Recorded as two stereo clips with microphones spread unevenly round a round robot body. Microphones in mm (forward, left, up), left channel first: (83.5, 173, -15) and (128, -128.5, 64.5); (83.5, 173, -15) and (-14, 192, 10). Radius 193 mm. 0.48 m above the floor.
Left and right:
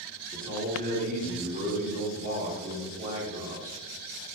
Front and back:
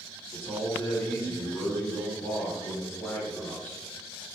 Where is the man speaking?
15° right, 1.6 m.